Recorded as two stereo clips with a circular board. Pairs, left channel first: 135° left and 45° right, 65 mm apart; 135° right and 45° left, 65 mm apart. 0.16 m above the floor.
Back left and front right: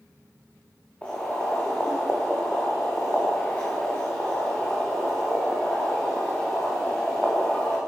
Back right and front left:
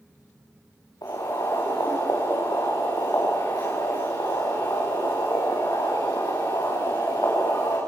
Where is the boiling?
150° right, 8 m.